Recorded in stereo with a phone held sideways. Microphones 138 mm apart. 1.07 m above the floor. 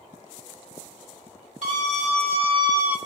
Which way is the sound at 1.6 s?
60° right (ahead or behind).